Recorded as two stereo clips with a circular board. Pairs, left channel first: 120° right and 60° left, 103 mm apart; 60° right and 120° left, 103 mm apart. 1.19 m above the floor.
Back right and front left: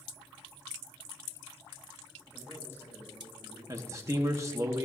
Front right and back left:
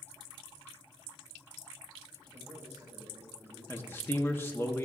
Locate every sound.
2.3 s a man speaking: 170° left, 4 m; by 3.6 s 170° right, 3 m
3.7 s a man speaking: 5° left, 0.8 m